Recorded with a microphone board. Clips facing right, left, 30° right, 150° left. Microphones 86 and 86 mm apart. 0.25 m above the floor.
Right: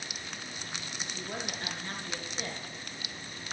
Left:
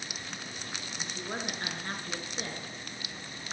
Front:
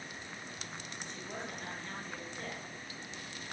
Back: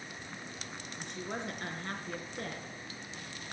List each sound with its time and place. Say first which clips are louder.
1.0 s a woman speaking: left 2 dB, back 5 dB; 135° left, 3 m